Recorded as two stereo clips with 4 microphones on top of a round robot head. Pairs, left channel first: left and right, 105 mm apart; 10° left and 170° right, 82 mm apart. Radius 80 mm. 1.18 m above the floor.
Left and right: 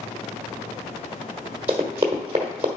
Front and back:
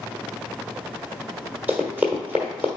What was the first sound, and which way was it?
Running footsteps, 120° right.